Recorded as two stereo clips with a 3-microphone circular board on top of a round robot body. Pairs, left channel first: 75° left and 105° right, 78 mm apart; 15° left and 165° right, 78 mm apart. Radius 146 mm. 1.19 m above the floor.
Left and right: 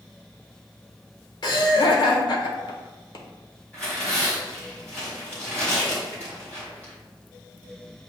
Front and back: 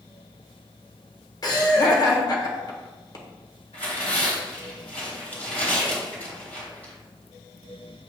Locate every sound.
1.4 s laughter: 50° left, 1.5 m
3.7 s tearing paper: 5° left, 1.4 m